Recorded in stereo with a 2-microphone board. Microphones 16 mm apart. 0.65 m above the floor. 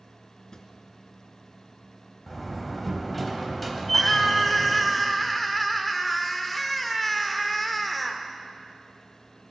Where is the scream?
10° left (ahead or behind), 2.5 m.